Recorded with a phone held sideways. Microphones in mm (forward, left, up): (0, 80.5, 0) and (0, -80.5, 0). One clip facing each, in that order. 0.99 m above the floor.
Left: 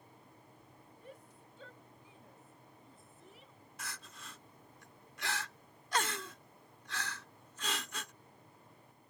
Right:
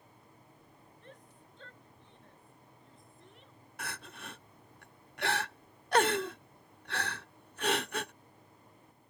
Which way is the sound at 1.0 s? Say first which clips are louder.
Left 2 dB; 10° left (ahead or behind).